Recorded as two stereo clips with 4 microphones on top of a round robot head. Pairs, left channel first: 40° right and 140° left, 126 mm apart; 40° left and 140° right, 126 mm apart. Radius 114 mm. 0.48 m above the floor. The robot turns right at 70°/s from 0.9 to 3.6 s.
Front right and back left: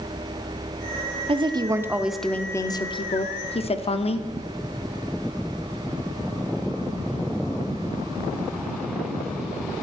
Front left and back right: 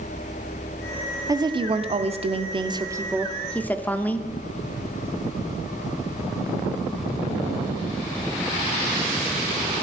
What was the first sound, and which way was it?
A woman speaking, 165° left.